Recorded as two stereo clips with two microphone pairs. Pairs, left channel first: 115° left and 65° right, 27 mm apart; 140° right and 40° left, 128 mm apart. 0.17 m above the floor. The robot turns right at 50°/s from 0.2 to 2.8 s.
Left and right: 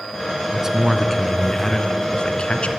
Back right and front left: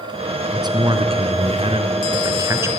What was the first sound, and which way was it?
A man speaking, 5° right.